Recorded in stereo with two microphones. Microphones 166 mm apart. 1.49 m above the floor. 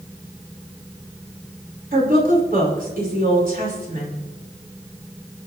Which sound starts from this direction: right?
A woman speaking, at 1.9 s.